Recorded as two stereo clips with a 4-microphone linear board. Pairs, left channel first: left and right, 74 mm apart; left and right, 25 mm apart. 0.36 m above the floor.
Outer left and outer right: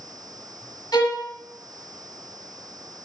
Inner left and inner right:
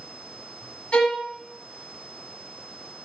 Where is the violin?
70° left (ahead or behind), 1.0 m.